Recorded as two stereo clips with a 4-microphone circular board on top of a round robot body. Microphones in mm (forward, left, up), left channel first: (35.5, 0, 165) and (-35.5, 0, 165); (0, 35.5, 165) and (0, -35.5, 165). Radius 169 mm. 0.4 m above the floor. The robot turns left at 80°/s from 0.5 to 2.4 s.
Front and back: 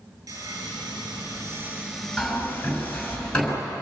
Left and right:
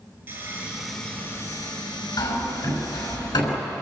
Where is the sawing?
145° right, 5.5 m; by 3.2 s 65° left, 5.5 m.